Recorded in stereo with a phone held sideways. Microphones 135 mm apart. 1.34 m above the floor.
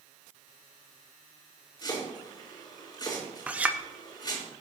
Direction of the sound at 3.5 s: 10° right (ahead or behind).